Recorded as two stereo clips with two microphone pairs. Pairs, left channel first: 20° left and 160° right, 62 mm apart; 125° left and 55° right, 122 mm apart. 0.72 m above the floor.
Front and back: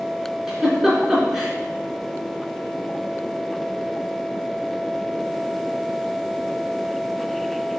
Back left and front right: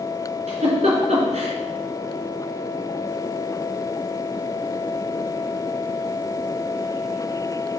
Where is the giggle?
70° right, 3 m.